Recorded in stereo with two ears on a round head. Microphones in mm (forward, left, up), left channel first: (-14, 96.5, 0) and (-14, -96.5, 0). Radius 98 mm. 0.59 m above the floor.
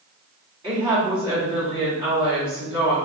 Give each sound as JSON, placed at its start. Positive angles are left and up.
{"t": 0.6, "sound": "a woman speaking", "side_deg": -15, "distance_m": 2.0}